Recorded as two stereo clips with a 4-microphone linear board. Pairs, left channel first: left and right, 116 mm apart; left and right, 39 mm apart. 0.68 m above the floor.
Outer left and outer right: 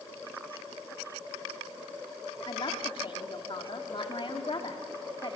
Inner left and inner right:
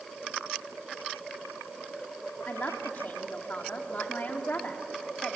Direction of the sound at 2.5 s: 50° left (ahead or behind).